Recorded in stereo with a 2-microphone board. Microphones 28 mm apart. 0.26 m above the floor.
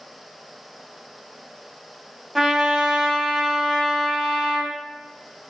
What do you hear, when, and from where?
2.4 s a trumpet: centre (ahead or behind), 0.8 m